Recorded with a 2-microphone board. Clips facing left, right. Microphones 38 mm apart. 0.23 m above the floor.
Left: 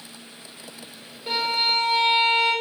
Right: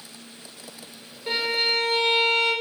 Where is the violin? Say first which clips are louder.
Left 1 dB; 5° right (ahead or behind), 1.2 m.